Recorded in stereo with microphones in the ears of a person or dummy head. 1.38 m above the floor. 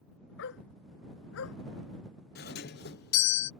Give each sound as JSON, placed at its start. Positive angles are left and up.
{"t": 0.4, "sound": "a dog barking", "side_deg": 75}
{"t": 2.4, "sound": "a doorbell", "side_deg": 50}